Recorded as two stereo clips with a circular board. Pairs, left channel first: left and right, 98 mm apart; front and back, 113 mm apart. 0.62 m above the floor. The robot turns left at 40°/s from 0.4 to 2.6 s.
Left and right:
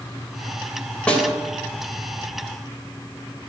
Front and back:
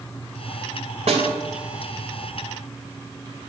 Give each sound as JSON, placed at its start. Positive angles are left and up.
{"t": 1.1, "sound": "a snare drum", "azimuth_deg": 170, "distance_m": 3.5}